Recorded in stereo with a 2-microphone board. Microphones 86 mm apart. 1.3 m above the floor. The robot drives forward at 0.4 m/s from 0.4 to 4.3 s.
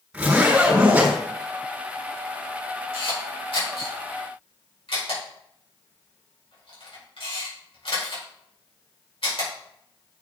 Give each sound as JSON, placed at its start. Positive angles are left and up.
{"t": 0.1, "sound": "a zipper", "side_deg": -10, "distance_m": 4.5}
{"t": 2.9, "sound": "a camera shutter", "side_deg": 85, "distance_m": 4.5}